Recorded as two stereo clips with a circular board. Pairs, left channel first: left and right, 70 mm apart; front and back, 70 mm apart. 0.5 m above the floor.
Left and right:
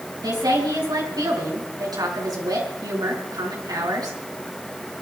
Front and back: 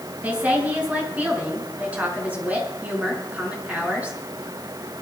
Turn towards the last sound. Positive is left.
turn(degrees=-110)